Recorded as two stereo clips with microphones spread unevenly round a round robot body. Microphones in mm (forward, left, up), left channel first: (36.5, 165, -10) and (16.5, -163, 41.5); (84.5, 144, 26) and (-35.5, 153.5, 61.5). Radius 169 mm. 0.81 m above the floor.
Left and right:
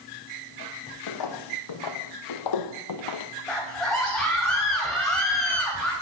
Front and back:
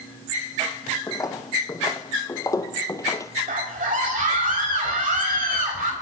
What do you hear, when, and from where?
1.1 s footsteps: 65° left, 2.5 m; by 3.3 s 70° left, 1.3 m
3.5 s a scream: 175° left, 4 m